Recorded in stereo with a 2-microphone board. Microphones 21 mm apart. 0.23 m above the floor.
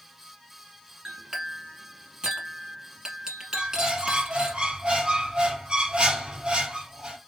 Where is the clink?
40° right (ahead or behind), 1.4 m.